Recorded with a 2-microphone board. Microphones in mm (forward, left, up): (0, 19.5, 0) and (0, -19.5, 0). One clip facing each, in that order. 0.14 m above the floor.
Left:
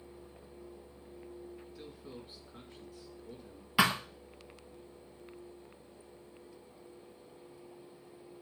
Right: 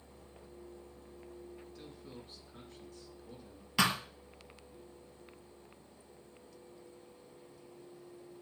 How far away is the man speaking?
About 1.4 m.